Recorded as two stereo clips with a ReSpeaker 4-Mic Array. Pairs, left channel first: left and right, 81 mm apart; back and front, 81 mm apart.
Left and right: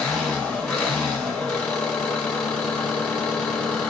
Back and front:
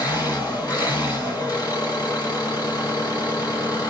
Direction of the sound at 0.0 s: 160° left.